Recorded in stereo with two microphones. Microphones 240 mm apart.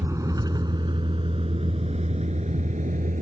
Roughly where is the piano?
No piano in this recording.